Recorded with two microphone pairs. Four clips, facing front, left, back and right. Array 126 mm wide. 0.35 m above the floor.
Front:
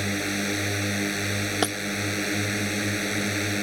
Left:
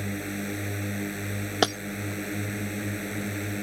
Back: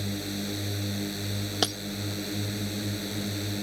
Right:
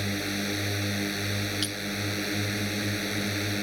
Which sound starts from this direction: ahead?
A drone, at 0.0 s.